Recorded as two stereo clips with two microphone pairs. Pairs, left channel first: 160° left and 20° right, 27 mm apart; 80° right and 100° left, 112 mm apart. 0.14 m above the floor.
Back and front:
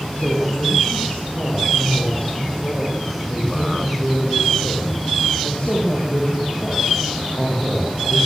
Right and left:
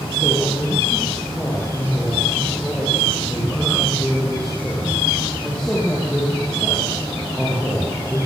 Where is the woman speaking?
160° right, 6.5 m.